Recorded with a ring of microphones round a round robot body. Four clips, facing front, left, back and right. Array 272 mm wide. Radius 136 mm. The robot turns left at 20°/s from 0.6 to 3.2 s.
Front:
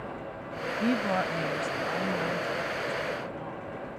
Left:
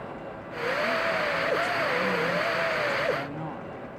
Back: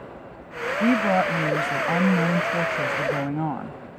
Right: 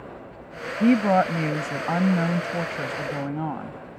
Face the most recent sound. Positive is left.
turn(degrees=-155)